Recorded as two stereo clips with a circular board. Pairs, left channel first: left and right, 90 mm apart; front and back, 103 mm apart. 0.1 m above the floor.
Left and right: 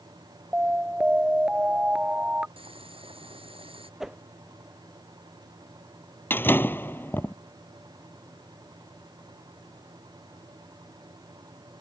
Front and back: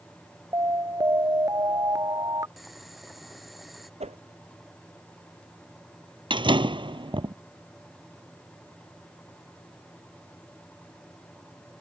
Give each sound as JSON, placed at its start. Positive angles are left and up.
{"t": 0.5, "sound": "an alarm", "azimuth_deg": -160}
{"t": 2.6, "sound": "boiling", "azimuth_deg": -90}
{"t": 4.0, "sound": "a whoosh", "azimuth_deg": -175}
{"t": 6.3, "sound": "a door slam", "azimuth_deg": 155}